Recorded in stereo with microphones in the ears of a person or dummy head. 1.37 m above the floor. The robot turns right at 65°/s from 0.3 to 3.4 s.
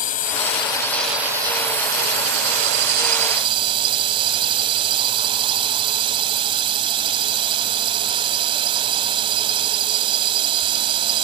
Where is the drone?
125° left; by 11.2 s 30° right.